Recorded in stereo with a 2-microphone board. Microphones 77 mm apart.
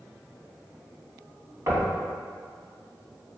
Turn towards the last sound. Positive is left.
turn(degrees=-40)  # may be behind; listen again after turning